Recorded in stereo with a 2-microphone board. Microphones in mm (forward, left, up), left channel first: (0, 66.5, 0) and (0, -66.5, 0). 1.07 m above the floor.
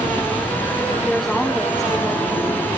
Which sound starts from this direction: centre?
A woman speaking, at 1.0 s.